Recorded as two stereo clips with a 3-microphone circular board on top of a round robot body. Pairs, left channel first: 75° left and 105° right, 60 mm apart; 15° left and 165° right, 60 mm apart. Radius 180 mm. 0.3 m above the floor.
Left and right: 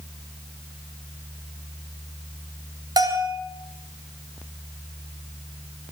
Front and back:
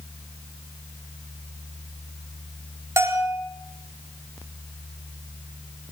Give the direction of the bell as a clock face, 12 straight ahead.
4 o'clock.